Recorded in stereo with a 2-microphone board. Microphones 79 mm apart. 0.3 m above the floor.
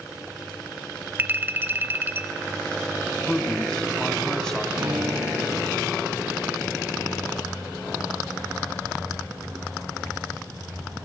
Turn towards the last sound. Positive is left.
turn(degrees=-65)  # may be behind; listen again after turning